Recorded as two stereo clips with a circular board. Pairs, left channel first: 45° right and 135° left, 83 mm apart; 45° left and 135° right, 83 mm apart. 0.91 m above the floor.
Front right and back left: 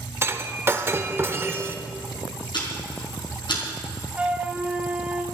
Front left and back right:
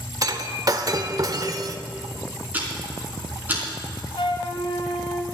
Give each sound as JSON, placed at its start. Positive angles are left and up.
{"t": 0.2, "sound": "breaking glass", "azimuth_deg": -170, "distance_m": 0.9}
{"t": 2.5, "sound": "ticking", "azimuth_deg": -65, "distance_m": 4.0}
{"t": 4.2, "sound": "a flute", "azimuth_deg": 60, "distance_m": 1.1}